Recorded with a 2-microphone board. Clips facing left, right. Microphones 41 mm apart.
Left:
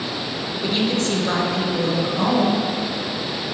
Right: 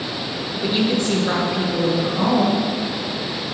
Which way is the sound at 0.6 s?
10° right (ahead or behind).